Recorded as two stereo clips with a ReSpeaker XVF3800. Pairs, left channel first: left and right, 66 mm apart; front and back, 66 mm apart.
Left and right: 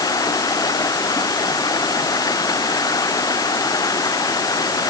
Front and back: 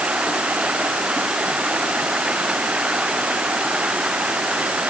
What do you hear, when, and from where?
0.0 s running water: 105° left